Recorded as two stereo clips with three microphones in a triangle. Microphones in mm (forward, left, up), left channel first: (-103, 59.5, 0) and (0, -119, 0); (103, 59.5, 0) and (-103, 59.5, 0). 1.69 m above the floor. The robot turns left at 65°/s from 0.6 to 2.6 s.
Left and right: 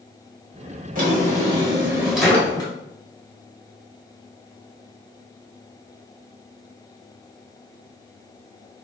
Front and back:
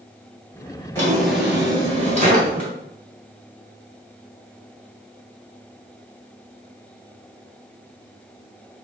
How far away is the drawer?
About 1.8 m.